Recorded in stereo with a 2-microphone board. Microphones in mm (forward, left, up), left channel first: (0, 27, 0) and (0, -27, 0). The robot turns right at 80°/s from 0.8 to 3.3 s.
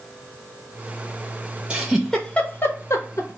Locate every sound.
1.7 s a giggle: 25° right (ahead or behind), 0.8 m; by 3.4 s 65° left (ahead or behind), 0.8 m